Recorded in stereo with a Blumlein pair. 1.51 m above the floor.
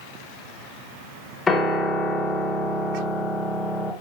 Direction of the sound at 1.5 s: 15° left.